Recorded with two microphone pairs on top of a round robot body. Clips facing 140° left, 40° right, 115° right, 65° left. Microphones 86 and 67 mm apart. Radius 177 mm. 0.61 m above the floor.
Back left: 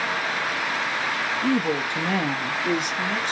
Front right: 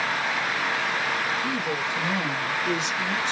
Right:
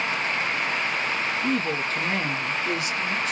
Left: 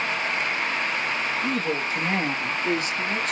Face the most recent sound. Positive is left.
turn(degrees=95)